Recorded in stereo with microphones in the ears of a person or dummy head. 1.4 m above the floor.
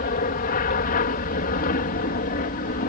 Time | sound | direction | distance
0.0 | an aircraft | 45° left (ahead or behind) | ?